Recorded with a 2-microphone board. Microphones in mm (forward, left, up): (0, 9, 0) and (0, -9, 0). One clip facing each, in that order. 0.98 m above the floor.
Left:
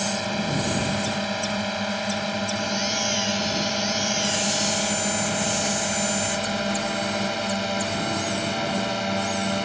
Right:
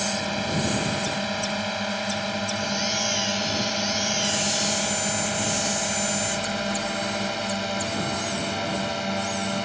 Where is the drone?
Centre (ahead or behind); by 9.7 s 5° left (ahead or behind).